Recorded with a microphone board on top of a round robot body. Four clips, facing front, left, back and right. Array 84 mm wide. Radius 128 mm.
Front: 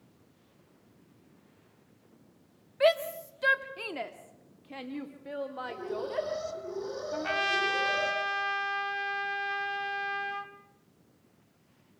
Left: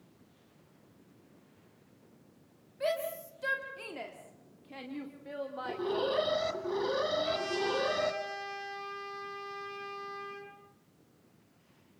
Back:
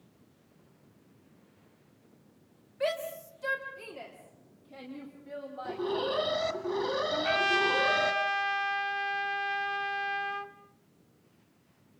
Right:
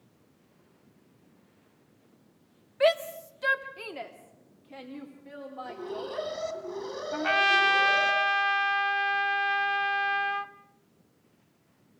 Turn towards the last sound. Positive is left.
turn(degrees=-90)